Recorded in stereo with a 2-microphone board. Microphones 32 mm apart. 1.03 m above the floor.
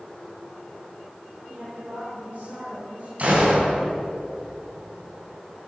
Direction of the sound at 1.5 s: 50° right (ahead or behind).